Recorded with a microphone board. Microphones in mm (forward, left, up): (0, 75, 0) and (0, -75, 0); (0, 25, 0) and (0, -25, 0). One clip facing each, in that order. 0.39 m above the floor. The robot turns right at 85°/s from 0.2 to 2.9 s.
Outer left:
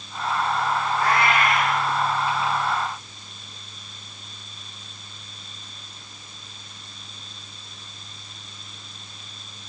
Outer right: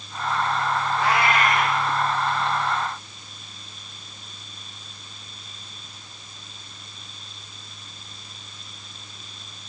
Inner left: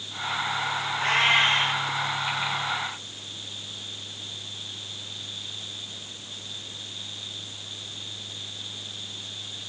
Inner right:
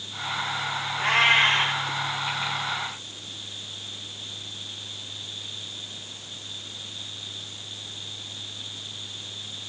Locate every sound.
1.0 s a cat meowing: straight behind, 5.5 m; by 1.8 s 110° right, 5.5 m